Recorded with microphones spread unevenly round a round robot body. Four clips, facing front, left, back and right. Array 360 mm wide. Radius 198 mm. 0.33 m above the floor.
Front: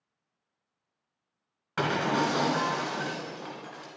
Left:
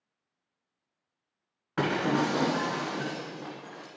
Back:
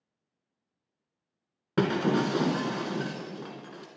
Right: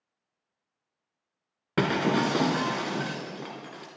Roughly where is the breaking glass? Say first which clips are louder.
Right 2 dB, back 2 dB; behind right.